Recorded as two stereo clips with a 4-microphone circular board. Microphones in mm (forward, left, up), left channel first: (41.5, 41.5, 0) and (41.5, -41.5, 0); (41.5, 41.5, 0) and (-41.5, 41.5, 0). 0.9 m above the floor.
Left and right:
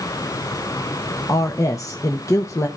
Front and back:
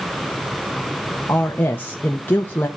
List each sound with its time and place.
1.3 s a woman speaking: 60° left, 1.1 m